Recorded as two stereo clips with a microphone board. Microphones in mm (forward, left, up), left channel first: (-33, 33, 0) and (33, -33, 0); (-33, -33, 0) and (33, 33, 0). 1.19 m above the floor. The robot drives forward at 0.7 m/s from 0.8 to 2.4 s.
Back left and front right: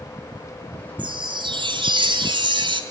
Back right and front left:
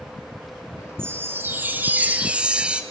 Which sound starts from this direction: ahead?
A chime, at 1.0 s.